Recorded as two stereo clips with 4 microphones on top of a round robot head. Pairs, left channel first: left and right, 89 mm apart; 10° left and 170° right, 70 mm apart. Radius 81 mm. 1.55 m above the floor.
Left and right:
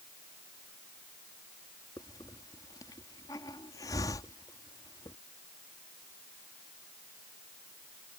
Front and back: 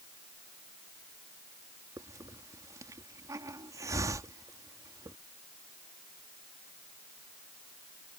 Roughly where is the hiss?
Behind left.